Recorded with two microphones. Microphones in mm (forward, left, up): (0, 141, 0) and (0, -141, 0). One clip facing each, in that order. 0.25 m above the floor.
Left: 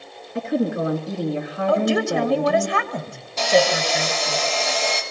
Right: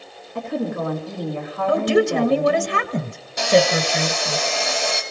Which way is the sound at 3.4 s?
15° right (ahead or behind).